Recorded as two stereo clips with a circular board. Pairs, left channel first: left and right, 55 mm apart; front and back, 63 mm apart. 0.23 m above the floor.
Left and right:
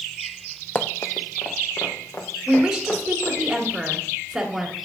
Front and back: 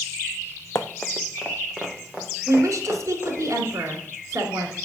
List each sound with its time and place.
0.8 s running footsteps: 40° left, 0.7 m; by 3.4 s 120° left, 4 m
2.5 s a woman speaking: 175° right, 2 m